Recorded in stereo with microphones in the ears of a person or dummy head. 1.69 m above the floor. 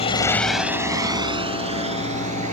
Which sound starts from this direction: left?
A motorcycle, at 0.0 s.